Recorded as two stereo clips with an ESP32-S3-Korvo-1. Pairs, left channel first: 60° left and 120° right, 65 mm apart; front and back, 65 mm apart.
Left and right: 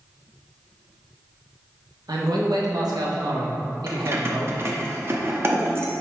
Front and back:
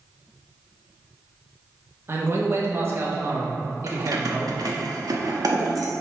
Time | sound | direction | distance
2.1 | a man speaking | 130° right | 1.4 m
3.9 | keys jangling | 170° right | 1.1 m